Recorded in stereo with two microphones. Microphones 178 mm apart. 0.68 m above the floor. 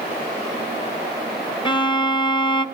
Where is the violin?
25° left (ahead or behind), 1.9 m.